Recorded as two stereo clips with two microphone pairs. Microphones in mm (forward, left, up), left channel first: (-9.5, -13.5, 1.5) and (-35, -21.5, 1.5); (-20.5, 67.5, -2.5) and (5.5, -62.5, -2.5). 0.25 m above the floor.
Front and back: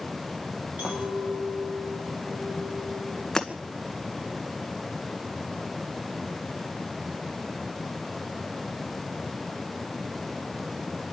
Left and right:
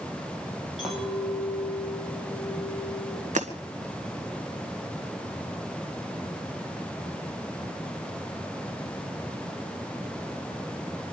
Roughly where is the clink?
Behind.